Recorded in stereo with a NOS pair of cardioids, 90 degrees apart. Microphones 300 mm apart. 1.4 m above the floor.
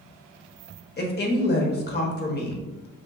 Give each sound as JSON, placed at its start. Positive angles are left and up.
{"t": 1.0, "sound": "a woman speaking", "azimuth_deg": 35, "distance_m": 0.9}